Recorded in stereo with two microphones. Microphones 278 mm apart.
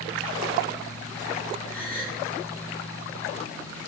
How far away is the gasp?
About 4 m.